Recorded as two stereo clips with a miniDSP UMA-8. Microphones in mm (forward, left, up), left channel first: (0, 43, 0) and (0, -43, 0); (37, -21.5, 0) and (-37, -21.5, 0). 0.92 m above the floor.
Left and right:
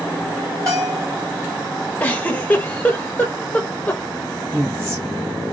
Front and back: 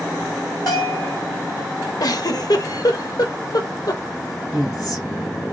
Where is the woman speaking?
40° right, 2 m.